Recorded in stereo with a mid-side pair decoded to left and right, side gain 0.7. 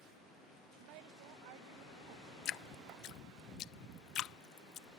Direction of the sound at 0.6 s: 70° right.